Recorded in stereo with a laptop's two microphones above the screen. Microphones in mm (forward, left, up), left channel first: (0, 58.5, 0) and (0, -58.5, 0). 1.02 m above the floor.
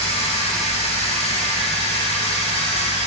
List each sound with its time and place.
0.0 s a machine running: 70° left (ahead or behind), 2.5 m